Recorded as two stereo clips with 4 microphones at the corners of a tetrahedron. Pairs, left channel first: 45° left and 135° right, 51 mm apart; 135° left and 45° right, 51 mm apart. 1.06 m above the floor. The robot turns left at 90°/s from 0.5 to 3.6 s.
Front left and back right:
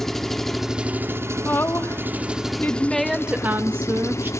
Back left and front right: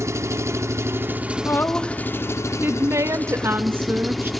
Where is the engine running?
40° right, 1.0 m; by 4.4 s 45° left, 1.0 m.